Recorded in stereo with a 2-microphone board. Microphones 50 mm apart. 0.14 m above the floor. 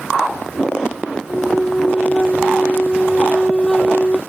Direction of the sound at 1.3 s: 10° left (ahead or behind).